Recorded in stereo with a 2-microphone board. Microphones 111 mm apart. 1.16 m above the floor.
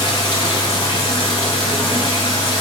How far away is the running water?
About 1.4 m.